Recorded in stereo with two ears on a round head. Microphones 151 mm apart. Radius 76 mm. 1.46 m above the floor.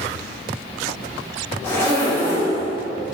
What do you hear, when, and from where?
1.6 s a zipper: 10° left (ahead or behind), 2.5 m